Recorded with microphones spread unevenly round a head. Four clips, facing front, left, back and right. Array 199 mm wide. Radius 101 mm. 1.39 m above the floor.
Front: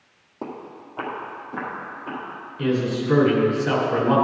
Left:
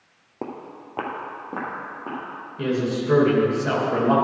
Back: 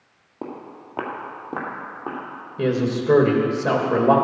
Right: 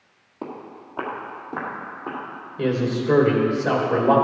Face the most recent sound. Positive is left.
turn(degrees=-165)